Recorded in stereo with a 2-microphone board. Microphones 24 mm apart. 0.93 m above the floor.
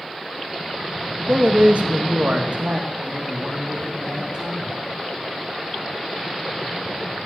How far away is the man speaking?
About 0.7 m.